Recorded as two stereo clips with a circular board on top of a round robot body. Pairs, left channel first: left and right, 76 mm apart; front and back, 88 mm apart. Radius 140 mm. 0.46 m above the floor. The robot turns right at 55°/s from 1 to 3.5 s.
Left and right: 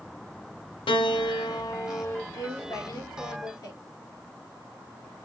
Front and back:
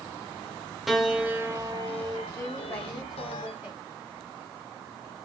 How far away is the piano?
About 0.6 m.